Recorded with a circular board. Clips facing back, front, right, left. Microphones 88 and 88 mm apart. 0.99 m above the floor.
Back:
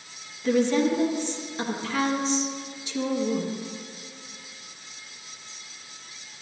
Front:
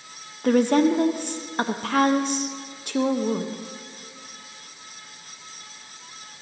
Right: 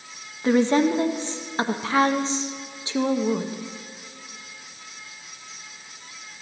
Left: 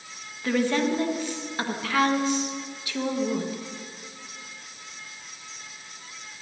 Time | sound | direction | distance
0.4 | a woman speaking | 25° right | 0.5 m